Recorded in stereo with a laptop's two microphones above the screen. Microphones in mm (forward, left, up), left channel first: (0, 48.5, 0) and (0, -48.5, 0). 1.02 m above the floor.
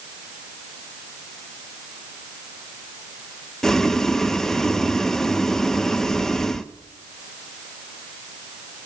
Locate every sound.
3.6 s boiling: 5° left (ahead or behind), 0.7 m